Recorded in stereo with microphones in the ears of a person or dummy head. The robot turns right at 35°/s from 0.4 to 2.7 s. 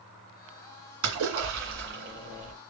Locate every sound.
1.0 s a splash: 105° right, 2.5 m; by 2.5 s 50° right, 2.5 m